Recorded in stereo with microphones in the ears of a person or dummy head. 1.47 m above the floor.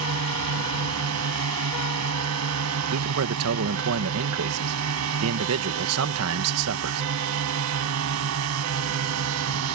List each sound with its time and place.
0.0 s a drone: 85° right
2.9 s a man speaking: 80° right